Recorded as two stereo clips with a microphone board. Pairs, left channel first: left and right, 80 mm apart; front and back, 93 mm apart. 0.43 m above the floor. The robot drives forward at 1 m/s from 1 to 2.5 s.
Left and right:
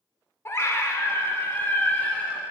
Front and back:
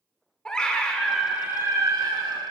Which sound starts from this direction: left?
A scream, at 0.5 s.